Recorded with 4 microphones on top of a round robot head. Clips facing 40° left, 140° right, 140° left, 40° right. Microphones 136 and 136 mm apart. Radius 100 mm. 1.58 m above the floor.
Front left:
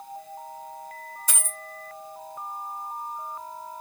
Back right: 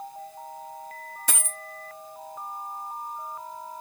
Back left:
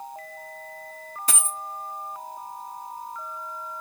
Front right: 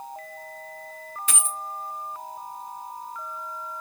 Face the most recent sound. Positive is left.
turn(degrees=-170)